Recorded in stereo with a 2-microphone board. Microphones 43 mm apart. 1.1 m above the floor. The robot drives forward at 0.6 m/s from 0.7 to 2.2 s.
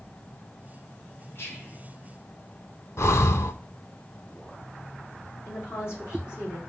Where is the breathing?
70° left (ahead or behind), 0.6 m.